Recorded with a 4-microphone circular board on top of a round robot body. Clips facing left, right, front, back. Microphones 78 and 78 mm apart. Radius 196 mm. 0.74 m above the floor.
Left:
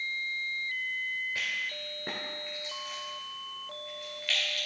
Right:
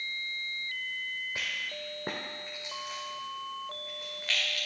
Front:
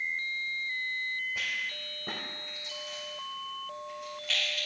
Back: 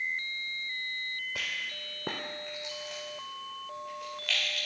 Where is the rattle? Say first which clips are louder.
Left 2 dB, front 2 dB; 165° right, 0.5 m.